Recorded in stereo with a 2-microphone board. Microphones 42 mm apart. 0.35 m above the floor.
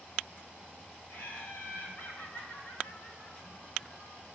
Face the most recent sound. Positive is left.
turn(degrees=60)  # may be behind; listen again after turning